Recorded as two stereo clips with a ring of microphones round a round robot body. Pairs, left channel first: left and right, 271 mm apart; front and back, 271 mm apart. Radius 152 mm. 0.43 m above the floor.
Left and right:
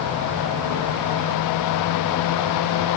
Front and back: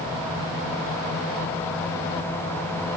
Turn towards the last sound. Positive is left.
No sound to turn to.